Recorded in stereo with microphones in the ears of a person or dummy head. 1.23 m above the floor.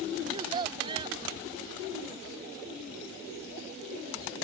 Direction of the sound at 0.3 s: 25° right (ahead or behind).